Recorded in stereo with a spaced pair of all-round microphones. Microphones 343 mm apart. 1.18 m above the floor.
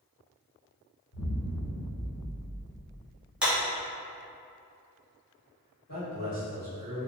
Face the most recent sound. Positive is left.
turn(degrees=60)  # may be behind; listen again after turning